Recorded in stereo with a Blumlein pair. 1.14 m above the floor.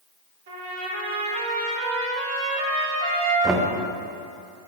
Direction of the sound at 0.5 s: 55° right.